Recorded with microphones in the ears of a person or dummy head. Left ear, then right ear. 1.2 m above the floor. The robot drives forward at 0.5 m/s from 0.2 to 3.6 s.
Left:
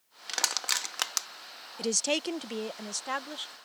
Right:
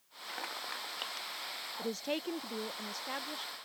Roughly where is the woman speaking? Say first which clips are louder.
Left 9 dB; left.